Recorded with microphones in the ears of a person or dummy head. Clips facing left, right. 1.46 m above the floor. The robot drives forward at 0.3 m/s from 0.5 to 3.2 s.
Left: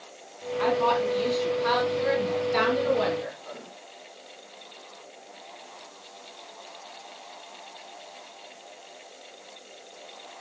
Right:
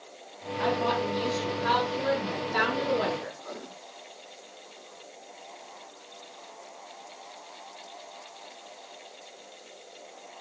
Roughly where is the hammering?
I don't hear hammering.